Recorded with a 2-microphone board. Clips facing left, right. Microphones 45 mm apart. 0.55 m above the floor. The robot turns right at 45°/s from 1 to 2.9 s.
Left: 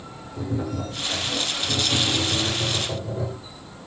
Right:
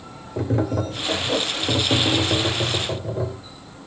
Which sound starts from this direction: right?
Tapping, at 0.4 s.